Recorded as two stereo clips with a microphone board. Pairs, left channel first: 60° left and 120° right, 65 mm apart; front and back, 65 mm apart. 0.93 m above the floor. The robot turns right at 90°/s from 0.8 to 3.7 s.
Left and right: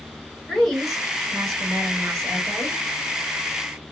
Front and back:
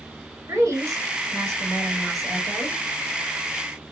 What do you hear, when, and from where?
0.5 s a woman speaking: 145° left, 2.5 m; by 2.8 s 35° right, 2.5 m